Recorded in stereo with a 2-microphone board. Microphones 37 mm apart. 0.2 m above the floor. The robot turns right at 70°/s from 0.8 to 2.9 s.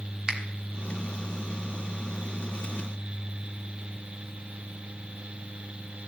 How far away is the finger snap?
About 1.5 m.